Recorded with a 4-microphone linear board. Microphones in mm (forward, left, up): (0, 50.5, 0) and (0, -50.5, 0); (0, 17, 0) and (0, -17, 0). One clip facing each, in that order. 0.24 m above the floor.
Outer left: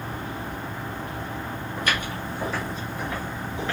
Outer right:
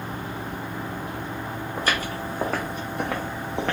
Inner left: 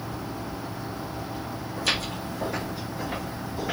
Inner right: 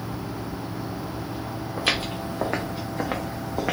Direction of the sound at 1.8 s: 30° right (ahead or behind).